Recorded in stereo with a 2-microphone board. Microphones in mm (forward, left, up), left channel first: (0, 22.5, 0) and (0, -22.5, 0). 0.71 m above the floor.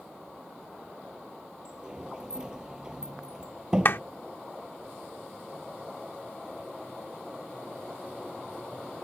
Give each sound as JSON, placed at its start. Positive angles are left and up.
{"t": 1.6, "sound": "a sliding door", "side_deg": -15}
{"t": 3.9, "sound": "a clap", "side_deg": 55}